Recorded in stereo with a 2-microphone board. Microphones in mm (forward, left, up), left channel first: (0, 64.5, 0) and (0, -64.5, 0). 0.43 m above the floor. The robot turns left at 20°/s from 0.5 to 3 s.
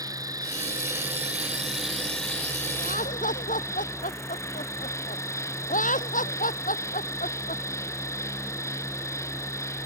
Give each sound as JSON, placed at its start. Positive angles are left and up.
{"t": 0.0, "sound": "an insect", "azimuth_deg": -155}
{"t": 2.8, "sound": "laughter", "side_deg": 85}